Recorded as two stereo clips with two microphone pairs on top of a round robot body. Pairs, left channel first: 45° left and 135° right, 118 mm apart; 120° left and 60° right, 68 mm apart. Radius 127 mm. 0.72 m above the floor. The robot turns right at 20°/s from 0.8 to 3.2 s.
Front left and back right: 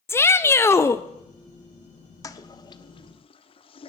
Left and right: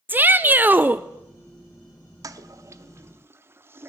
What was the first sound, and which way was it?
A shout, 15° right.